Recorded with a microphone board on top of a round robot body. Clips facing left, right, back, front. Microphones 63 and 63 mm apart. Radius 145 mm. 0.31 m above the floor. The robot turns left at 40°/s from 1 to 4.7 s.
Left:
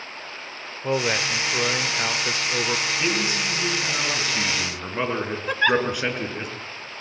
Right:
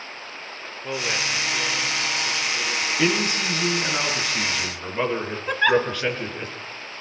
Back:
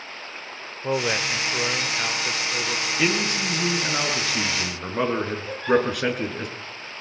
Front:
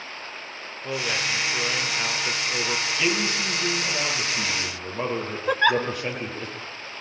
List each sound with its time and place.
0.8 s a man speaking: 145° left, 1.7 m; by 2.9 s 70° left, 1.7 m
3.0 s a man speaking: 125° right, 7.5 m; by 6.5 s 165° left, 7.5 m
5.5 s a giggle: 5° right, 0.8 m